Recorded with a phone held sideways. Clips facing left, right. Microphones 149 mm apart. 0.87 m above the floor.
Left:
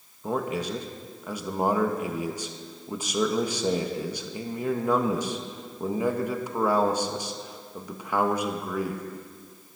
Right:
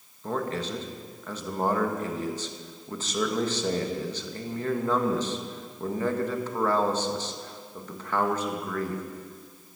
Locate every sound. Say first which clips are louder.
0.2 s a man speaking: left 2 dB; 10° left (ahead or behind), 1.1 m